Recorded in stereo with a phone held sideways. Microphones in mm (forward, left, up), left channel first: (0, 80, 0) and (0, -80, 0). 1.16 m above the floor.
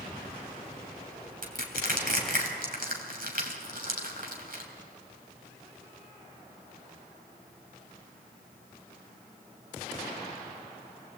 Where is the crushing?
65° right (ahead or behind), 3 m.